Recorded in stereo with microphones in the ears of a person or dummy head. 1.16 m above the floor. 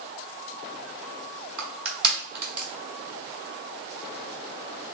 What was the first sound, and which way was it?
Crushing, 10° right (ahead or behind).